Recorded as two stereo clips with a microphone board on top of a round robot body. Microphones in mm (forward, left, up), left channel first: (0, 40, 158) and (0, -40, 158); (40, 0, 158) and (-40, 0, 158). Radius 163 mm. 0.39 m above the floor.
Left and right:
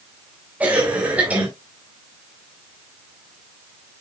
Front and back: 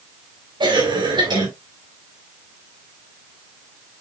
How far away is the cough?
About 3.5 m.